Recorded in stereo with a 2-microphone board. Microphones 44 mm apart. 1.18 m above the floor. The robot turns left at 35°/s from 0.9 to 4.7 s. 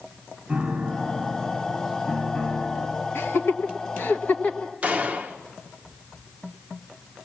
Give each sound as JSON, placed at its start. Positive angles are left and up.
{"t": 0.5, "sound": "a piano", "azimuth_deg": -155, "distance_m": 2.5}
{"t": 3.1, "sound": "laughter", "side_deg": 75, "distance_m": 1.6}
{"t": 4.8, "sound": "a gunshot", "side_deg": -30, "distance_m": 1.0}